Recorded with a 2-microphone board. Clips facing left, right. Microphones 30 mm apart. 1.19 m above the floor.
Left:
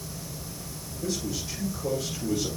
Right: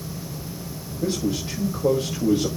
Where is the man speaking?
35° right (ahead or behind), 2.5 m.